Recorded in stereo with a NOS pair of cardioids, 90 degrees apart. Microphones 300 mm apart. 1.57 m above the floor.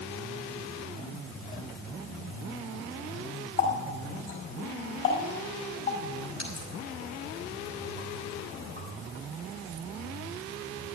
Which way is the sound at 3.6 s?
45° left.